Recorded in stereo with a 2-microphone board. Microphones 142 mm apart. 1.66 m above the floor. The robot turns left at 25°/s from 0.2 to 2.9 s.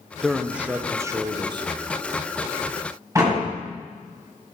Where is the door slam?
20° right (ahead or behind), 6.5 m.